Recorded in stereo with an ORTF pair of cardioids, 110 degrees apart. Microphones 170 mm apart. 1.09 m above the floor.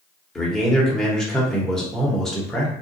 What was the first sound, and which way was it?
A man speaking, 5° left.